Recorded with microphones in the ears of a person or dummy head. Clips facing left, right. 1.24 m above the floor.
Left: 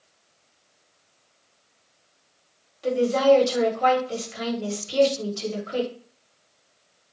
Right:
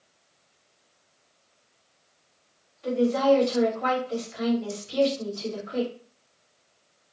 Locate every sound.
2.8 s a woman speaking: 65° left (ahead or behind), 1.5 m